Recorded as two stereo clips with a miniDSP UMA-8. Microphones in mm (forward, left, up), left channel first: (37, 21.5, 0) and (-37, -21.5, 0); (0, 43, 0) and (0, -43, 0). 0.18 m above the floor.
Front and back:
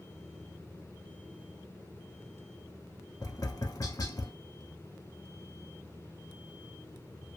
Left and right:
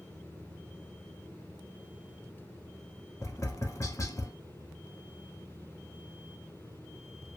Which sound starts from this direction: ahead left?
Tapping, at 3.2 s.